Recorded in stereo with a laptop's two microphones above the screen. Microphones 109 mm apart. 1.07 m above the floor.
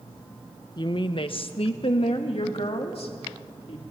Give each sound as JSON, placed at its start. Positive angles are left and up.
{"t": 0.8, "sound": "a woman speaking", "side_deg": 40, "distance_m": 0.7}